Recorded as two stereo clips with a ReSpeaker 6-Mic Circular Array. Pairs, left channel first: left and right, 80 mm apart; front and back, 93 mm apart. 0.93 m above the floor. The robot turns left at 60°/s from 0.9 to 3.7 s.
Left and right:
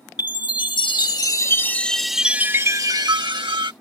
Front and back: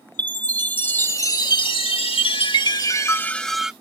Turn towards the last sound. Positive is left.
turn(degrees=-95)